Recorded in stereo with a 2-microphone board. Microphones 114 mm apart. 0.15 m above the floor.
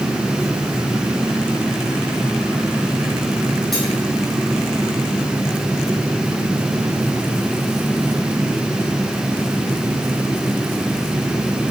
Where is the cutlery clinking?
5° left (ahead or behind), 3.5 m.